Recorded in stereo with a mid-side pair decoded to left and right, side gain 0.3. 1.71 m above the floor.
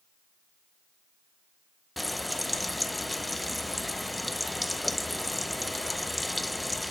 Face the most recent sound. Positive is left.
turn(degrees=15)